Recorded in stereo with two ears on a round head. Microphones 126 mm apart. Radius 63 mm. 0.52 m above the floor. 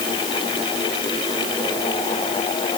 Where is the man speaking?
I don't hear a man speaking.